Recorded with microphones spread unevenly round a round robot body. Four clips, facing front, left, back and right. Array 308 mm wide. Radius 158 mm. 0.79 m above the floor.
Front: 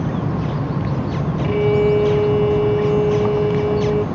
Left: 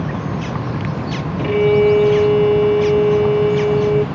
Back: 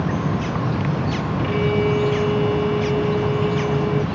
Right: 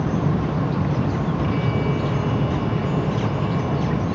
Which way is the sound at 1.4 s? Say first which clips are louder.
Left 10 dB, front 5 dB; 80° left.